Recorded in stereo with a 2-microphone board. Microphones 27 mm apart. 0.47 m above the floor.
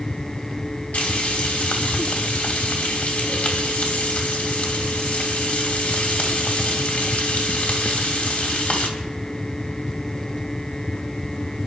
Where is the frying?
70° left (ahead or behind), 3 m.